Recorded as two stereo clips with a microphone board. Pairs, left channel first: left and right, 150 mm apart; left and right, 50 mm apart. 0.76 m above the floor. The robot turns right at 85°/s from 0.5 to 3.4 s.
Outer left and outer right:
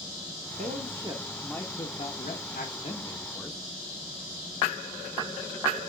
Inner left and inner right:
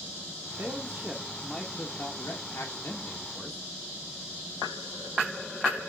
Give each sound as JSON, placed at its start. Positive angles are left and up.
{"t": 0.6, "sound": "a man speaking", "azimuth_deg": -65, "distance_m": 1.3}